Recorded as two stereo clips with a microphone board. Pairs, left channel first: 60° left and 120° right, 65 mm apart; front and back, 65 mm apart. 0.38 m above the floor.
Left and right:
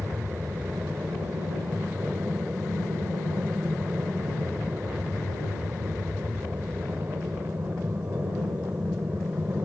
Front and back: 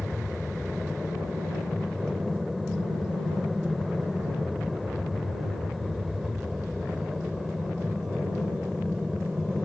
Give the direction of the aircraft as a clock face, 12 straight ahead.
3 o'clock.